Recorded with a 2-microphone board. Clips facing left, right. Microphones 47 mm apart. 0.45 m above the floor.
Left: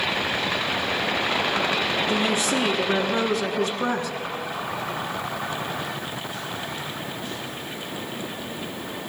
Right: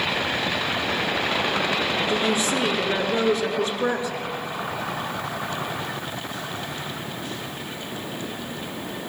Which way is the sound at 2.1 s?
60° left (ahead or behind).